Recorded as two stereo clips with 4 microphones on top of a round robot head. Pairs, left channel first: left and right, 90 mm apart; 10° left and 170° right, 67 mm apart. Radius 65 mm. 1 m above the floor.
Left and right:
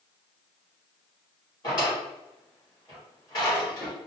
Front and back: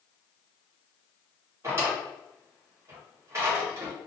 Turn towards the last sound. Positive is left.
turn(degrees=145)